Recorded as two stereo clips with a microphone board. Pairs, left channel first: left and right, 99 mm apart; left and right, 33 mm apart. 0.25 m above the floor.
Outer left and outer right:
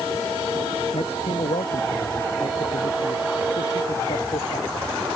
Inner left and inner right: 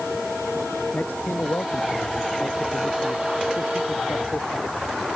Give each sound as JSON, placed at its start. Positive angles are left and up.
{"t": 0.9, "sound": "a man speaking", "side_deg": 80}